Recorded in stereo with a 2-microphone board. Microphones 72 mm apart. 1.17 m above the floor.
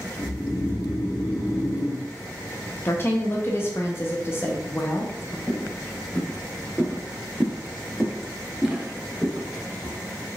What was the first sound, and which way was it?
Snoring, 45° left (ahead or behind).